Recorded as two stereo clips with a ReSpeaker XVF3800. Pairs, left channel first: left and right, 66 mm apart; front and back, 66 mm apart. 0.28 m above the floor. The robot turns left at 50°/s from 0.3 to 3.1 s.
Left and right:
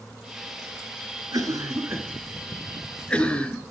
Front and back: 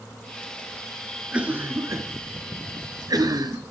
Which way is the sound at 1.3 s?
105° right.